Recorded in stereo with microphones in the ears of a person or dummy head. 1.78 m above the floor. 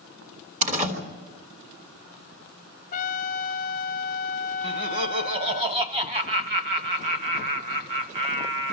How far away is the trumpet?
About 0.7 m.